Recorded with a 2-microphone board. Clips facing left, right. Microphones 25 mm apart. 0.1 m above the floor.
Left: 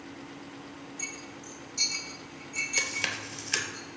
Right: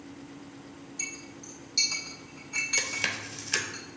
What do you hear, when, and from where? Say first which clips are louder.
1.0 s a clink: right 2 dB; 70° right (ahead or behind), 2.5 m
2.8 s chewing: even; centre (ahead or behind), 0.8 m